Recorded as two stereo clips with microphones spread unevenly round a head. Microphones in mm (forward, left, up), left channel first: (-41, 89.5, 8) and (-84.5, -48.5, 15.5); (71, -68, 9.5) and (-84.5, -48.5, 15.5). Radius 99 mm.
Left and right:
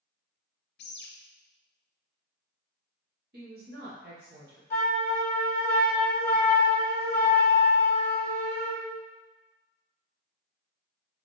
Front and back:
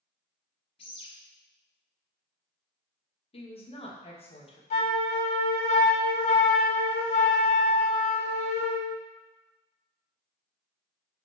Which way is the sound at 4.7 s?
Straight ahead.